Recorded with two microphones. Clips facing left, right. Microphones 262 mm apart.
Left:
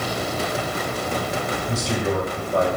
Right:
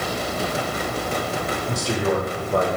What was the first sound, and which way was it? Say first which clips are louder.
A man speaking: right 2 dB; 85° right.